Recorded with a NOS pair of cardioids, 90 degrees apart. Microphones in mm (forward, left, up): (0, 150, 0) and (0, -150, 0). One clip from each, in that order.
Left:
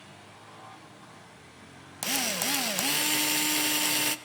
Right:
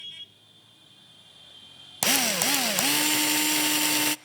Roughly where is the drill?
Ahead right.